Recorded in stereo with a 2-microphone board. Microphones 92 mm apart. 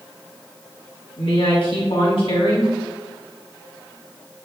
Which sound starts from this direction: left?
A woman speaking, at 1.2 s.